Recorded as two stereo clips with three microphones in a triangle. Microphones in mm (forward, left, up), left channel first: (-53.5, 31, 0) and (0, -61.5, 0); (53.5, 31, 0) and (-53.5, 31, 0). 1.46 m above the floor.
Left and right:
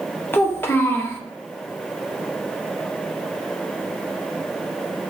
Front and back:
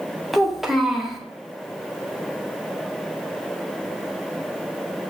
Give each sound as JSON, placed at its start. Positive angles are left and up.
{"t": 0.3, "sound": "a child speaking", "azimuth_deg": 90, "distance_m": 0.6}